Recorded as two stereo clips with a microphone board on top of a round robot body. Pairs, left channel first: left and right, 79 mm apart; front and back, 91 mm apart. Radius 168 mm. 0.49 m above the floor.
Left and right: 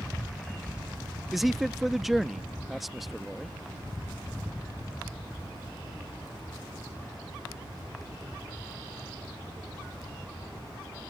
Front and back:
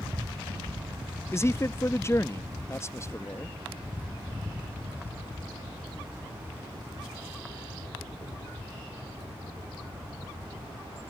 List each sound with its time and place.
1.3 s a man speaking: 5° right